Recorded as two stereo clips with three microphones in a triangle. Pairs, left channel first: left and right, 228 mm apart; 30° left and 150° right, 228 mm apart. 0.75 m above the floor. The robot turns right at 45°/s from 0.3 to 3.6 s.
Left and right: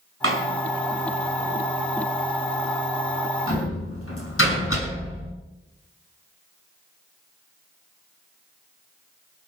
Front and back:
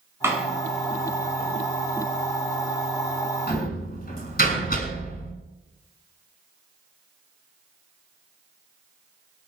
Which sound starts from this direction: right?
A door slam, at 0.2 s.